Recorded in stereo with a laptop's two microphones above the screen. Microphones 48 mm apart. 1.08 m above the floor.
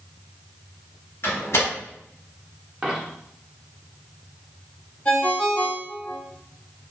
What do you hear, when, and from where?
1.2 s a door slam: 55° left (ahead or behind), 1.0 m
2.8 s a dropped coin: 10° right (ahead or behind), 0.7 m
5.0 s a ringtone: 40° left (ahead or behind), 1.5 m